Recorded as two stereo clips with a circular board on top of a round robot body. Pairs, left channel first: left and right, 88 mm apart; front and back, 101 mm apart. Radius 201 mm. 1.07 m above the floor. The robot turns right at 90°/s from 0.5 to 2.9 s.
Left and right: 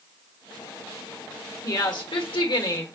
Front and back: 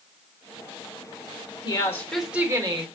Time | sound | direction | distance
1.6 | a woman speaking | 40° left | 1.2 m